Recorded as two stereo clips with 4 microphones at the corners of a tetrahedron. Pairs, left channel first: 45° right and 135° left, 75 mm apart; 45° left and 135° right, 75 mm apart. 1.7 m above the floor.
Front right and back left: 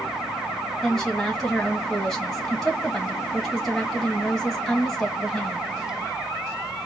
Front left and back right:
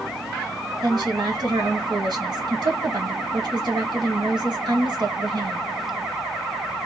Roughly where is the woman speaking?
Behind right.